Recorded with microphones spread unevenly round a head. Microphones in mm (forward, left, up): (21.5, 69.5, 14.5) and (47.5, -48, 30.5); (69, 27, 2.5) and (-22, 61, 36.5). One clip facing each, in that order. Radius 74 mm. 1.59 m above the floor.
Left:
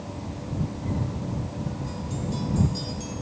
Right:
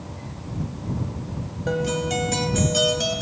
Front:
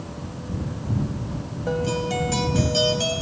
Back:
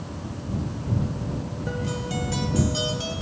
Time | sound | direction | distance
1.7 | a guitar | 75° right | ?